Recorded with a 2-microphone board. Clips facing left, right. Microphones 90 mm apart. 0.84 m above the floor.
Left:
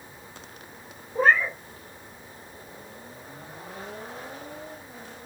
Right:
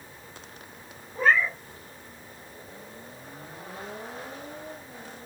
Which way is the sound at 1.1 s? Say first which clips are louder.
Left 2 dB; 50° left (ahead or behind).